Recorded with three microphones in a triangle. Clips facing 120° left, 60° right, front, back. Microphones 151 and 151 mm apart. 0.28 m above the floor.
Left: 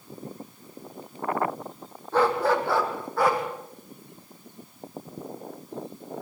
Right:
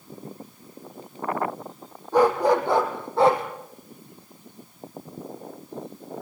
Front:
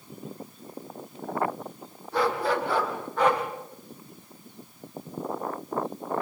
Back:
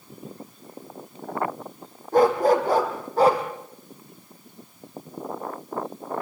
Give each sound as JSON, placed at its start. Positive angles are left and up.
{"t": 2.1, "sound": "a dog barking", "azimuth_deg": -135, "distance_m": 4.0}